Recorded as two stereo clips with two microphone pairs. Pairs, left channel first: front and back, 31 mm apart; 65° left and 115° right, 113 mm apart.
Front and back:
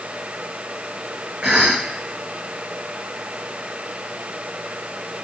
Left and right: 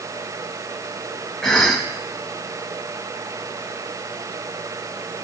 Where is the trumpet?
No trumpet in this recording.